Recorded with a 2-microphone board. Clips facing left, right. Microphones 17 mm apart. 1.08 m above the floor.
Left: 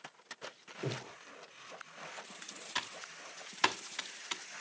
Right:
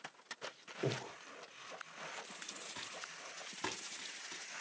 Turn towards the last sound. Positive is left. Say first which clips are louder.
# left 6 dB
turn(degrees=70)  # may be behind; listen again after turning